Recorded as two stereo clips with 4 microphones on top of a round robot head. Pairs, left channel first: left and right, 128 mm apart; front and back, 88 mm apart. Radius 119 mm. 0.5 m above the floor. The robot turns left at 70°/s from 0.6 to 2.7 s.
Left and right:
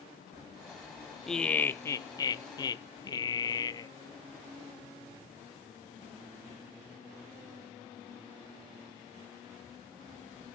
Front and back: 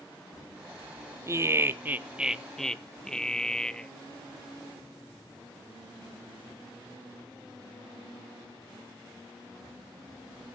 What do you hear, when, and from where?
1.3 s laughter: 175° left, 0.7 m; by 3.9 s 75° left, 0.7 m